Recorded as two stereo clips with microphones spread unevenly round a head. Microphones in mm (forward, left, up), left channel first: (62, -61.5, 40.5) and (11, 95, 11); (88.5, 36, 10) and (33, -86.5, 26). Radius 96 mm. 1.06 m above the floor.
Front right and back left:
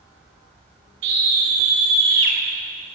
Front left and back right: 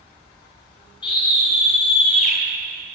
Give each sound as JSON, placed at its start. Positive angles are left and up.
{"t": 1.0, "sound": "a scream", "azimuth_deg": 135, "distance_m": 9.5}